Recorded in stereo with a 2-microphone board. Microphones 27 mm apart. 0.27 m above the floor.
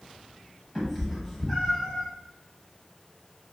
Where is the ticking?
No ticking in this recording.